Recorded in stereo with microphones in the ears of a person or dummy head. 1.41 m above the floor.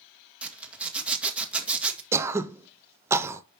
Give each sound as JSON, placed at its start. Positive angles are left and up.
{"t": 0.4, "sound": "a zipper", "side_deg": -5, "distance_m": 1.7}
{"t": 2.1, "sound": "throat clearing", "side_deg": -15, "distance_m": 0.6}